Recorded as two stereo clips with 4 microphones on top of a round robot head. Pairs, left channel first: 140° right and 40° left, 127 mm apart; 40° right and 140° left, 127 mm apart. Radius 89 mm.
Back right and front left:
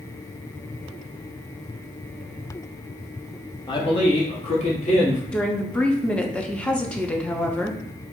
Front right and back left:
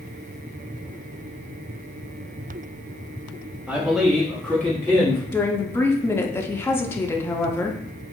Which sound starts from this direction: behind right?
A man speaking, at 3.7 s.